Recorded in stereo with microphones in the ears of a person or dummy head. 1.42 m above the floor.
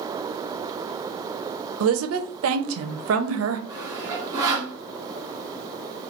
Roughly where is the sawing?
Right.